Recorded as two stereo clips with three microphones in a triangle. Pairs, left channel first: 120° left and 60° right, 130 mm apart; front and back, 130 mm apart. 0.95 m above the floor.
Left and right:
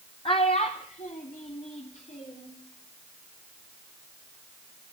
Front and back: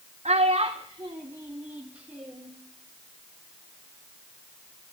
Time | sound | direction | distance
0.2 | a child speaking | 160° left | 0.8 m